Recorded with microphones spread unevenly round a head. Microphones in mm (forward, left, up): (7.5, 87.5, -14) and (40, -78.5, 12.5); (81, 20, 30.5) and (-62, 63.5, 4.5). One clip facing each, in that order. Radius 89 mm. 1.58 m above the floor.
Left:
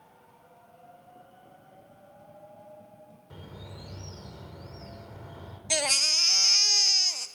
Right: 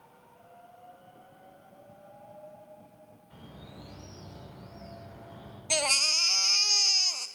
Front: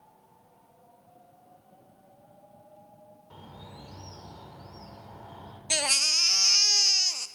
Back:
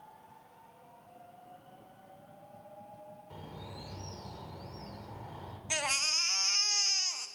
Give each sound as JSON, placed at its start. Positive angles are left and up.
{"t": 3.3, "sound": "a bird", "azimuth_deg": 80, "distance_m": 4.0}
{"t": 5.7, "sound": "a baby crying", "azimuth_deg": 15, "distance_m": 0.6}